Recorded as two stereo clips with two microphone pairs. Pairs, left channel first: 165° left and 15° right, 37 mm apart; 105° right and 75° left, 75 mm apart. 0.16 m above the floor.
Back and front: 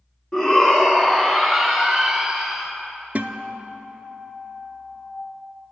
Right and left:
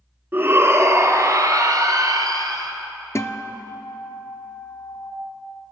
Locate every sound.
0.3 s a shout: 110° left, 1.2 m; by 2.7 s 80° left, 2.5 m
3.1 s a guitar: 60° right, 0.5 m